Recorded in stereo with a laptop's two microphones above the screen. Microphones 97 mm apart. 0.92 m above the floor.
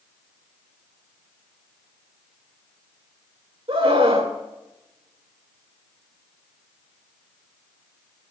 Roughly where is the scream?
Right.